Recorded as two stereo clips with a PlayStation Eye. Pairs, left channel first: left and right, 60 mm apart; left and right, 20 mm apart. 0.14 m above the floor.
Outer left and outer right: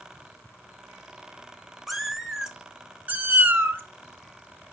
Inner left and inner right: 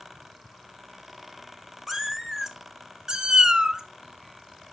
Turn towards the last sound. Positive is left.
turn(degrees=-30)  # may be behind; listen again after turning